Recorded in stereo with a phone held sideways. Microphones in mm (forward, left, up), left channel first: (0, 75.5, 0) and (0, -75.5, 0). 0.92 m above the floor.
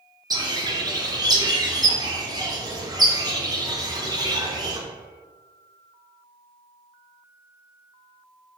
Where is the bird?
25° right (ahead or behind), 0.6 m.